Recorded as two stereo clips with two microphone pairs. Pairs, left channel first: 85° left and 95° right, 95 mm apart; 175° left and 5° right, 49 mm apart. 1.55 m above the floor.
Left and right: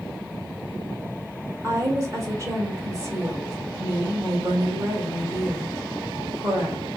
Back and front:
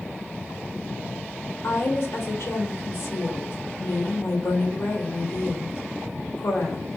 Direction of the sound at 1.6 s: 150° right.